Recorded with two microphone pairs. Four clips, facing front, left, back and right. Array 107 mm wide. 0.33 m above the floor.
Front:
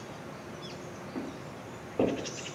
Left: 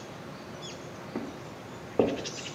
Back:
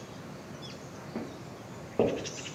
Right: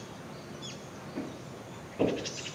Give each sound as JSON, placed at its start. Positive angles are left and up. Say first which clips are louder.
{"t": 1.1, "sound": "footsteps", "louder": "left 2 dB, even", "azimuth_deg": 110, "distance_m": 1.3}